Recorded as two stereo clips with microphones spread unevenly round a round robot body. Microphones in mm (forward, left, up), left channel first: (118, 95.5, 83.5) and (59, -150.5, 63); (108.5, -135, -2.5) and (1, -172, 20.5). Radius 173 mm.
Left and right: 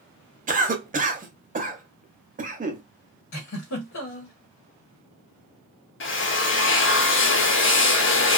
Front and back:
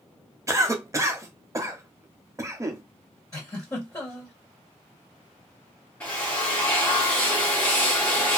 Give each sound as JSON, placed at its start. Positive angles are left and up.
{"t": 0.5, "sound": "a cough", "azimuth_deg": -100, "distance_m": 0.9}
{"t": 3.3, "sound": "a giggle", "azimuth_deg": 85, "distance_m": 1.3}
{"t": 6.0, "sound": "a drill", "azimuth_deg": 75, "distance_m": 0.6}